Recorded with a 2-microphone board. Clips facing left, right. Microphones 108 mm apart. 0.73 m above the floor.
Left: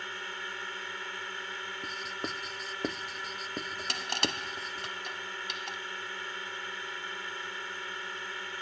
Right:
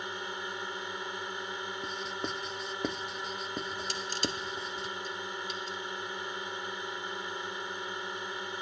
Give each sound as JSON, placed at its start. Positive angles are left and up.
{"t": 0.0, "sound": "a drone", "side_deg": -20}
{"t": 1.8, "sound": "writing", "side_deg": 0}
{"t": 3.9, "sound": "crushing", "side_deg": 70}